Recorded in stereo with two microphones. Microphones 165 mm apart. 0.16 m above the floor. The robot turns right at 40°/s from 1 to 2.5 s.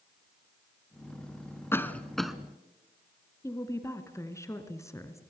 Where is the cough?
15° left (ahead or behind), 1.3 m; by 2.4 s centre (ahead or behind), 1.3 m.